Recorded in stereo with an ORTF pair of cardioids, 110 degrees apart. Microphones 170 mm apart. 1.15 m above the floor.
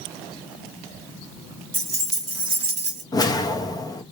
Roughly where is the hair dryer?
I don't hear a hair dryer.